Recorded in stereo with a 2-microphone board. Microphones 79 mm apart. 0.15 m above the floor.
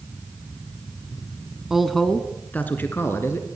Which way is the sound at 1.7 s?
5° right (ahead or behind).